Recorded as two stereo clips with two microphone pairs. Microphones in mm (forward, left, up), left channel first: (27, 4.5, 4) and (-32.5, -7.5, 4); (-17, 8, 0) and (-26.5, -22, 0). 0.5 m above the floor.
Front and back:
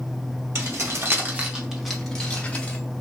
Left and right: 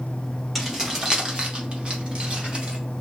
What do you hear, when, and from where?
0.6 s keys jangling: 170° left, 1.1 m; by 2.8 s 55° right, 1.6 m